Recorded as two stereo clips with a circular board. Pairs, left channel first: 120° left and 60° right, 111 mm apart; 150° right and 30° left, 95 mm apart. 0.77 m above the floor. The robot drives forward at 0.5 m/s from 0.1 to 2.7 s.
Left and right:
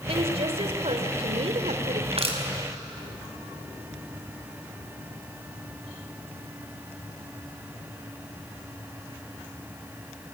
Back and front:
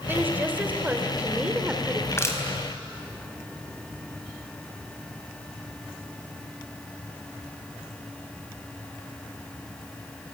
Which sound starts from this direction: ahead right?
A woman speaking, at 0.1 s.